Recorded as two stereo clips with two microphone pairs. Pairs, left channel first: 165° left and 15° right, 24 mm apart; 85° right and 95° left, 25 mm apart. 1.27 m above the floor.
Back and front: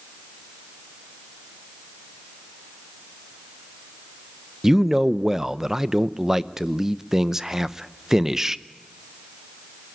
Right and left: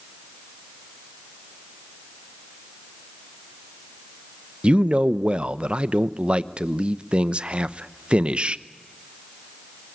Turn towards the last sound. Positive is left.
turn(degrees=50)